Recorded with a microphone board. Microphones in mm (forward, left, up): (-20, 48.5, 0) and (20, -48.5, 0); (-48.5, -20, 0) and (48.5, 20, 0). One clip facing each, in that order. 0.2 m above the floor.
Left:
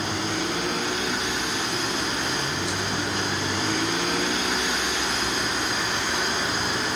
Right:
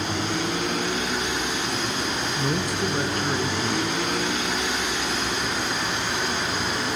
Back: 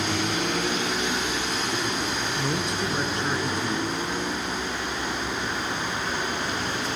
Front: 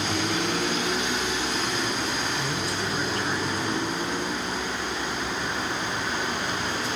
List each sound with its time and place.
2.4 s a man speaking: 95° right, 1.8 m